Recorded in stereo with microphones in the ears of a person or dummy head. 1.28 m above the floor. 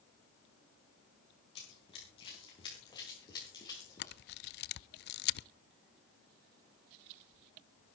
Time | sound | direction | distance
1.6 | running footsteps | 30° left (ahead or behind) | 6 m
4.0 | a camera shutter | 45° left (ahead or behind) | 0.5 m